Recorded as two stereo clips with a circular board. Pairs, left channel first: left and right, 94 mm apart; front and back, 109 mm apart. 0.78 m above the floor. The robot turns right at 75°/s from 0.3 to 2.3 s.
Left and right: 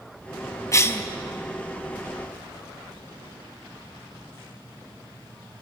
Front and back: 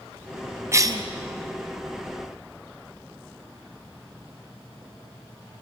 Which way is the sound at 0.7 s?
130° left.